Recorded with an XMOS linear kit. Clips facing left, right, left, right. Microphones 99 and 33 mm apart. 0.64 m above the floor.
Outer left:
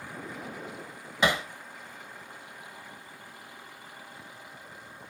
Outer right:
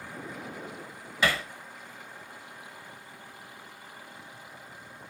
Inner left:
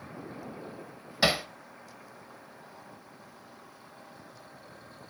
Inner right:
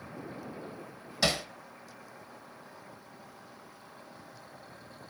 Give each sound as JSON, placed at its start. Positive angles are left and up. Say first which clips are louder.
{"t": 1.2, "sound": "hammering", "louder": "outer left 2 dB, inner left 3 dB", "side_deg": 20, "distance_m": 0.9}